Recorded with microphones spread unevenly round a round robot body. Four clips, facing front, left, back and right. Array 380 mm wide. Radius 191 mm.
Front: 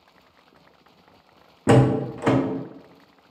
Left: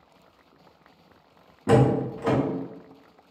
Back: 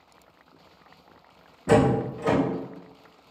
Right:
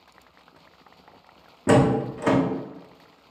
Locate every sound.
1.7 s a door slam: 30° right, 1.0 m